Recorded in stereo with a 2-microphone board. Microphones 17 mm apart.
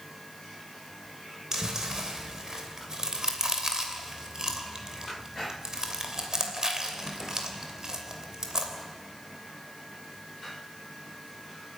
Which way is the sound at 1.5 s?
35° right (ahead or behind).